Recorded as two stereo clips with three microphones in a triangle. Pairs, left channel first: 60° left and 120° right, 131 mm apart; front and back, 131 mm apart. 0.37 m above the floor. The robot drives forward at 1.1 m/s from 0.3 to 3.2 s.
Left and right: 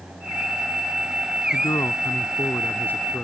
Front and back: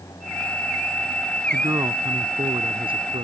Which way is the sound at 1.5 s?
115° left.